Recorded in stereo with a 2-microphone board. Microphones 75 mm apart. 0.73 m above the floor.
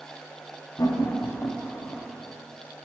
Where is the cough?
No cough in this recording.